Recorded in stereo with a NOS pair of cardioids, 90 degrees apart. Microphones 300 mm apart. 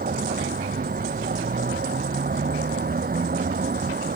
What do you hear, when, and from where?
0.0 s a vehicle: 30° right